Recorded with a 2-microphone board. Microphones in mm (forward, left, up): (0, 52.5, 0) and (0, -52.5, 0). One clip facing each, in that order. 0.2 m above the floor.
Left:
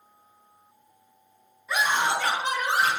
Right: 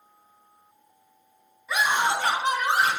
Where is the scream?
5° right (ahead or behind), 1.8 m; by 2.9 s 40° right (ahead or behind), 3 m.